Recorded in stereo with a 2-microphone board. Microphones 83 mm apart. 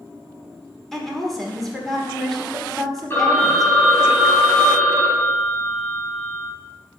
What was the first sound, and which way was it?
A woman speaking, 5° left (ahead or behind).